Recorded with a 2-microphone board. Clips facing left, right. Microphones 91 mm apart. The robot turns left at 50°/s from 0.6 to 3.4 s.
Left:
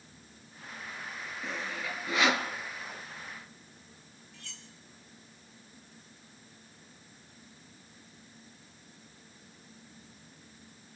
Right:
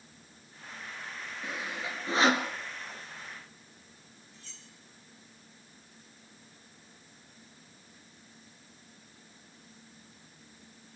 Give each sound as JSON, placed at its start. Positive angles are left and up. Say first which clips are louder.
{"t": 1.4, "sound": "sawing", "louder": "even", "side_deg": -5, "distance_m": 2.5}
{"t": 4.3, "sound": "cutlery clinking", "louder": "left 3 dB", "side_deg": 65, "distance_m": 2.0}